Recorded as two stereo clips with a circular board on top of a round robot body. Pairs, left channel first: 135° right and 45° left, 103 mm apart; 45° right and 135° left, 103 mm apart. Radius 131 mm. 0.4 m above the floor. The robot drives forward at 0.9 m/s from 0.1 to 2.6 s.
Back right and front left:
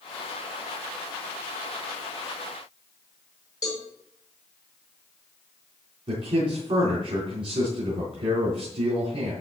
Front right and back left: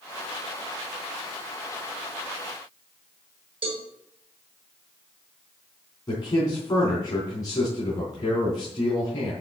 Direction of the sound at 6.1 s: 10° left.